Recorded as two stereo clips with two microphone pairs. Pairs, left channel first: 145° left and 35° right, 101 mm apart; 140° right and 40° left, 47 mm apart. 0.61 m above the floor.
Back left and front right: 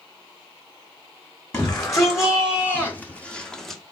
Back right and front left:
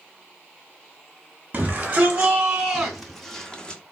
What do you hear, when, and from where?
1.5 s a shout: 95° left, 1.3 m; by 3.8 s 135° right, 0.8 m